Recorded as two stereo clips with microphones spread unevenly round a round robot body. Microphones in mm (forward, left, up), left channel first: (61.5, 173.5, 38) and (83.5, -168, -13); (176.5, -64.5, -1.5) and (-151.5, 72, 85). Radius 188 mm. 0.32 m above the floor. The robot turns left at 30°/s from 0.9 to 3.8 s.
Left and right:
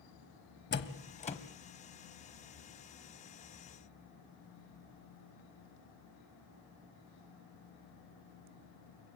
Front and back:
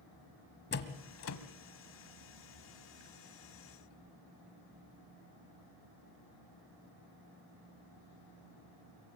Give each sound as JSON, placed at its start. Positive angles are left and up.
{"t": 0.7, "sound": "a door slam", "azimuth_deg": 30, "distance_m": 1.3}